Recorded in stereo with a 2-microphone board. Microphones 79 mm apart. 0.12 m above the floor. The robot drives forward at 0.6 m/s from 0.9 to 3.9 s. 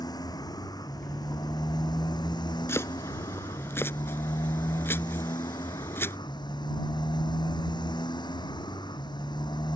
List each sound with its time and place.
0.0 s a motorcycle: 60° left (ahead or behind); by 9.8 s 80° left
2.7 s chopping: 35° left (ahead or behind); by 6.2 s 30° left (ahead or behind)